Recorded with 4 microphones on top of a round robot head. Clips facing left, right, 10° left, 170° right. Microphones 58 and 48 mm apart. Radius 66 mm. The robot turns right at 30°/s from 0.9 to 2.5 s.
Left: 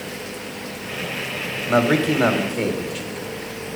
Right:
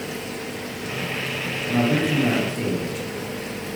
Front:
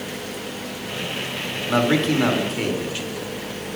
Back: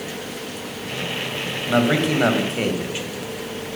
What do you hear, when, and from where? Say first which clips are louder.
1.7 s a man speaking: left 4 dB, even; 100° left, 1.4 m; by 3.7 s 125° left, 1.4 m